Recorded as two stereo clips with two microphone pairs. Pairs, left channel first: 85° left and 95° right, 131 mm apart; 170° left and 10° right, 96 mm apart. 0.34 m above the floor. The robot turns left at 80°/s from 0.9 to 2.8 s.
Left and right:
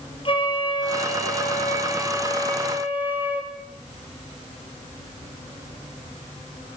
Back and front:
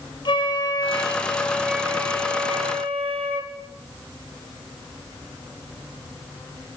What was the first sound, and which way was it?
A flute, 130° left.